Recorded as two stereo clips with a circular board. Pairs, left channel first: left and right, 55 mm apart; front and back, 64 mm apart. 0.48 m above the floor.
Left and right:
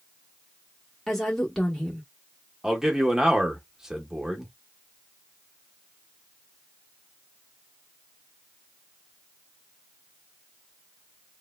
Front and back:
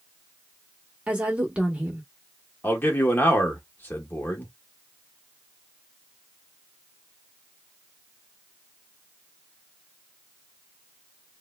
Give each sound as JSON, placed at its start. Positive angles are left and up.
{"t": 1.1, "sound": "a woman speaking", "azimuth_deg": 155, "distance_m": 0.8}
{"t": 2.6, "sound": "a man speaking", "azimuth_deg": -15, "distance_m": 0.8}